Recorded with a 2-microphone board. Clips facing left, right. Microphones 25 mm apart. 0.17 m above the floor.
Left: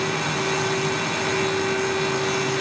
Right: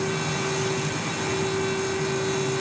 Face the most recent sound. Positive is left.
No sound to turn to.